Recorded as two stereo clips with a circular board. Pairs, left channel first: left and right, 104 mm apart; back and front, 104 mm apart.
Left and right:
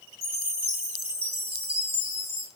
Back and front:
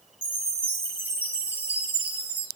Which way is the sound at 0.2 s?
75° right.